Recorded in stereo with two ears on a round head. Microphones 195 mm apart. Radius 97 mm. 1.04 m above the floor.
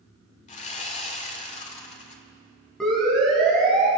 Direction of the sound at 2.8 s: 5° left (ahead or behind).